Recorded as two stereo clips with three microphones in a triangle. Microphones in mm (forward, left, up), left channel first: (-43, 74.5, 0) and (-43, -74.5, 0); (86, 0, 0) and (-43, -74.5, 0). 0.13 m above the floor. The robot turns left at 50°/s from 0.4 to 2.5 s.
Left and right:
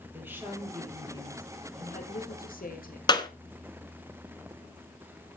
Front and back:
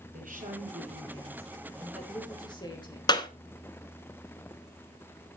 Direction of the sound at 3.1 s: 60° left.